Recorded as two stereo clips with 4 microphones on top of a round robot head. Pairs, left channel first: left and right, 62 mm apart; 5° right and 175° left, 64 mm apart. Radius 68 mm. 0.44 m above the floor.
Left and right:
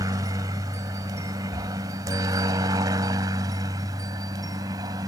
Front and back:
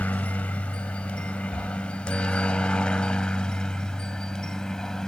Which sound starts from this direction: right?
A helicopter, at 0.0 s.